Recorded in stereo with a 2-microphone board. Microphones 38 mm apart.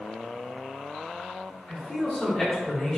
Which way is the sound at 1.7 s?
20° left (ahead or behind).